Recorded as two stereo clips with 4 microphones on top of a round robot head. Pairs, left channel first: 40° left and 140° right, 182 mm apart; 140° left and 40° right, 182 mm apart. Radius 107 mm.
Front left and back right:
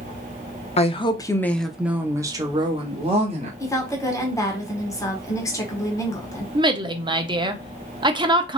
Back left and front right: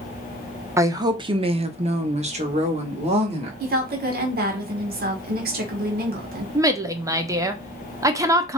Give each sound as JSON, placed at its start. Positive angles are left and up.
{"t": 0.8, "sound": "a woman speaking", "azimuth_deg": 25, "distance_m": 0.9}
{"t": 3.6, "sound": "a woman speaking", "azimuth_deg": -30, "distance_m": 1.6}
{"t": 6.5, "sound": "a woman speaking", "azimuth_deg": -95, "distance_m": 0.9}